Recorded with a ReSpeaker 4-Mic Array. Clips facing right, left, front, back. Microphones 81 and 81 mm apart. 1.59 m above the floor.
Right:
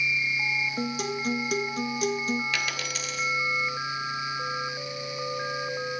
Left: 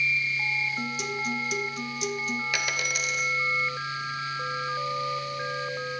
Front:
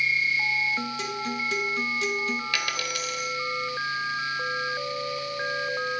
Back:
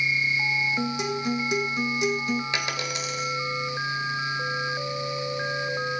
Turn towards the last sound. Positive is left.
turn(degrees=150)